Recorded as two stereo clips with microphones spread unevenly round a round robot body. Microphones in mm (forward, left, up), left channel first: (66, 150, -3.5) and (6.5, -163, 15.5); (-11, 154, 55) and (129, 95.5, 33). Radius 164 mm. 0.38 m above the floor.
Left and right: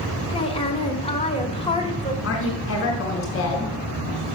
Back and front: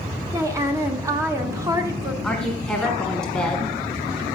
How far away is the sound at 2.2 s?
About 1.4 m.